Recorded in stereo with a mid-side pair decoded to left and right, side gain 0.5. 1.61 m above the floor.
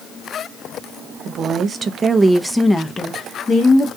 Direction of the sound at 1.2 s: 60° right.